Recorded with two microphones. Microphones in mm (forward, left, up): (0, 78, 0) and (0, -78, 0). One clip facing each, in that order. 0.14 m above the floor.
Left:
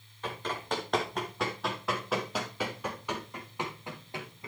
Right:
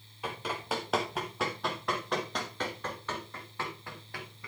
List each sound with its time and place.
0.2 s running footsteps: 10° right (ahead or behind), 4 m; by 4.5 s 25° left (ahead or behind), 3.5 m